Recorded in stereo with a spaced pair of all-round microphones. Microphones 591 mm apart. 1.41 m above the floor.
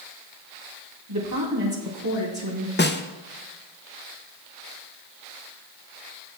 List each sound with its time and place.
1.1 s a woman speaking: 40° right (ahead or behind), 3 m
2.8 s a snare drum: 20° left (ahead or behind), 0.5 m